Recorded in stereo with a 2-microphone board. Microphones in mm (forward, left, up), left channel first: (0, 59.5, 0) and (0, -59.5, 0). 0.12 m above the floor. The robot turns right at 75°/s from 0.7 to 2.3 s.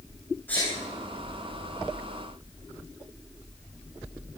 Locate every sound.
0.5 s a sneeze: 15° left (ahead or behind), 6.5 m